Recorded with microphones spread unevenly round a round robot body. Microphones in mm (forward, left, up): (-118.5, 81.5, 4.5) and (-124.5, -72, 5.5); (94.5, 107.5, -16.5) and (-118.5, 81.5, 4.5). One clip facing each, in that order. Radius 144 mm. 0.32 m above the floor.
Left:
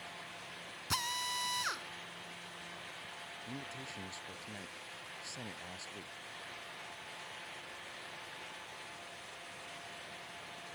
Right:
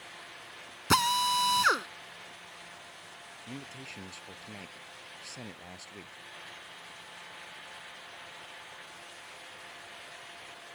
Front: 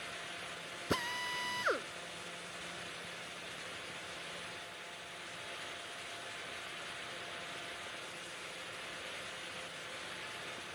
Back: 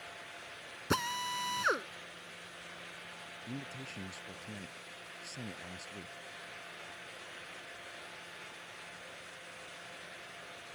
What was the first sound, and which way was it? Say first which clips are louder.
A drill: right 14 dB, back 2 dB; 95° right.